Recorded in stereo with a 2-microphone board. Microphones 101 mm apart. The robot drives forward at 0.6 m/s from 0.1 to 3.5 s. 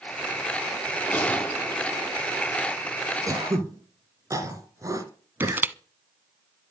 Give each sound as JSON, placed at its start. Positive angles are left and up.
{"t": 1.1, "sound": "a gunshot", "side_deg": 15, "distance_m": 3.5}
{"t": 3.3, "sound": "throat clearing", "side_deg": -30, "distance_m": 2.0}
{"t": 5.4, "sound": "crushing", "side_deg": -20, "distance_m": 0.8}